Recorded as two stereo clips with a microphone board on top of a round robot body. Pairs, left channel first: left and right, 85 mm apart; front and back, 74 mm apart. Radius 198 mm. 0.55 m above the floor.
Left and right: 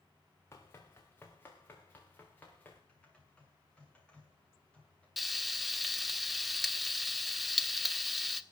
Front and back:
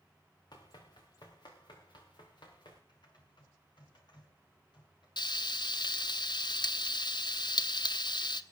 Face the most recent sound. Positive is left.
turn(degrees=0)